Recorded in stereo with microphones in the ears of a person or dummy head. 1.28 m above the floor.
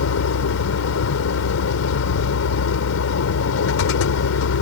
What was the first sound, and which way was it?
A vehicle, 85° left.